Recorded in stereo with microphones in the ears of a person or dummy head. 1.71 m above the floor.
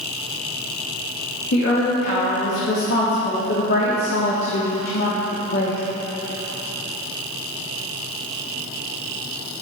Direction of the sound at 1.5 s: 65° left (ahead or behind).